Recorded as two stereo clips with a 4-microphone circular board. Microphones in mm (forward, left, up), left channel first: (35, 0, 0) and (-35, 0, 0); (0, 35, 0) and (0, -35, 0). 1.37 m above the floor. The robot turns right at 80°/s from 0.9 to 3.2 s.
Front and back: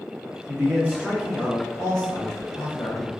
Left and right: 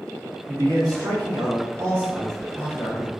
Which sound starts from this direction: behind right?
A man speaking, at 0.5 s.